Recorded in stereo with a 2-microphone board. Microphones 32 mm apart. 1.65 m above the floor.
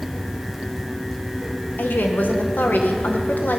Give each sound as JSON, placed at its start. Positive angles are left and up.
{"t": 1.8, "sound": "a woman speaking", "side_deg": 75, "distance_m": 1.6}